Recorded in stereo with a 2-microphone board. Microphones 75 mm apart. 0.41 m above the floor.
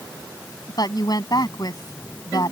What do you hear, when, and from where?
0.7 s a woman speaking: 55° left (ahead or behind)